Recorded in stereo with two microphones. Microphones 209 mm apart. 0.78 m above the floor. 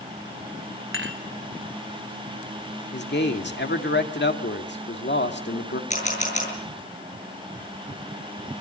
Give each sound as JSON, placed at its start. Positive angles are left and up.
{"t": 0.9, "sound": "dishes clattering", "side_deg": -80, "distance_m": 2.0}
{"t": 2.9, "sound": "a man speaking", "side_deg": 60, "distance_m": 1.9}
{"t": 5.9, "sound": "a camera shutter", "side_deg": 35, "distance_m": 8.5}